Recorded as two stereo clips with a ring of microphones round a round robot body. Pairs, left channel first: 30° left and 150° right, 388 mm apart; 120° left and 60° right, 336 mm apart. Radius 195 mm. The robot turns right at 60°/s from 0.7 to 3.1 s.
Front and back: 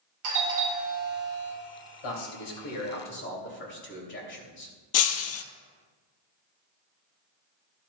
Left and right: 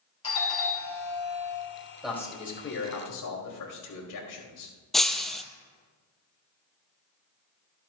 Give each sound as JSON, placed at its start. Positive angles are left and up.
{"t": 0.2, "sound": "a doorbell", "azimuth_deg": -165, "distance_m": 2.5}
{"t": 2.0, "sound": "a man speaking", "azimuth_deg": 25, "distance_m": 3.0}
{"t": 4.9, "sound": "breaking glass", "azimuth_deg": 30, "distance_m": 0.7}